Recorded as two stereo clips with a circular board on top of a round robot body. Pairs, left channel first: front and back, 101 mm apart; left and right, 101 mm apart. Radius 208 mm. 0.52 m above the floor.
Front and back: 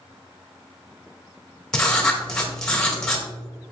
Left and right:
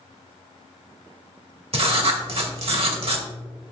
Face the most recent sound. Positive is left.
turn(degrees=-85)